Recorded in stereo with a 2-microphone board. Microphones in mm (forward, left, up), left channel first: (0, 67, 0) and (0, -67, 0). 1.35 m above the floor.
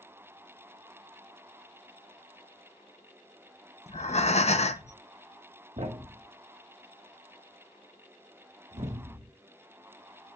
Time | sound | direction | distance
3.9 | breathing | 55° left (ahead or behind) | 0.6 m
5.8 | a thud | 55° right (ahead or behind) | 1.2 m